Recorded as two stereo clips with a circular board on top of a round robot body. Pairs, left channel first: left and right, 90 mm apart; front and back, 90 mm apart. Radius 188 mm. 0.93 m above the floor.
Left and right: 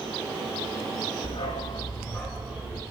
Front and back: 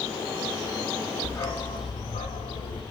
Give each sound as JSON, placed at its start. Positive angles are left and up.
{"t": 1.2, "sound": "a dog barking", "azimuth_deg": 70, "distance_m": 0.9}